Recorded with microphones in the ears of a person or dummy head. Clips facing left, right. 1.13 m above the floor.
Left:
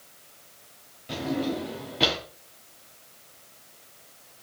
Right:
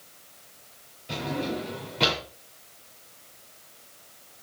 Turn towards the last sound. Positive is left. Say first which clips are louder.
# left 2 dB
turn(degrees=5)  # may be behind; listen again after turning